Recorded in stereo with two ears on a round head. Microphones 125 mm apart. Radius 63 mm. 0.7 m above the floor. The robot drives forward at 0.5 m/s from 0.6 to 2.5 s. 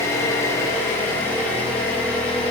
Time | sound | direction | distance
0.0 | an engine running | 20° left (ahead or behind) | 0.8 m